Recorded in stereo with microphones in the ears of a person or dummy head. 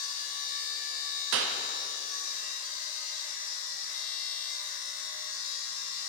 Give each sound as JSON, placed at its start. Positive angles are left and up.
{"t": 0.0, "sound": "a machine running", "side_deg": 45, "distance_m": 0.9}
{"t": 1.3, "sound": "a clap", "side_deg": -65, "distance_m": 0.6}